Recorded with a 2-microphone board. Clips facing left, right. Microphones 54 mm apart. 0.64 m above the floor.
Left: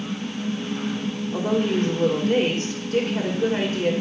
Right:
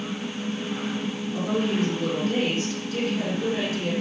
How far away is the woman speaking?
About 2.5 m.